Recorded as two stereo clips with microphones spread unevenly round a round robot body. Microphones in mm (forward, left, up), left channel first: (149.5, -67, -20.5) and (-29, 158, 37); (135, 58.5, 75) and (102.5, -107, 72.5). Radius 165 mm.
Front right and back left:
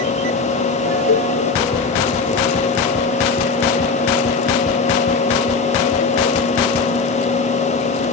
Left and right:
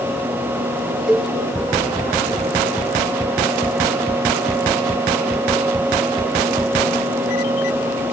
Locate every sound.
1.1 s a cowbell: 15° right, 1.3 m